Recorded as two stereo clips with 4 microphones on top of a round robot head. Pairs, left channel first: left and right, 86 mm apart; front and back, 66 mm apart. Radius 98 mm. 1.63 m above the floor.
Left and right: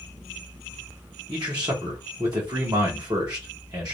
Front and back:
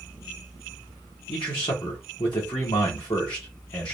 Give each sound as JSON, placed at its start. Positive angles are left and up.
{"t": 1.3, "sound": "a man speaking", "azimuth_deg": -30, "distance_m": 1.1}